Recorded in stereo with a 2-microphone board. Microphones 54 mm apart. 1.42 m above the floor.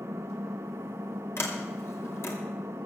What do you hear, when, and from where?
0.0 s an engine running: 60° right (ahead or behind), 0.9 m
1.4 s a sliding door: 55° left (ahead or behind), 2.5 m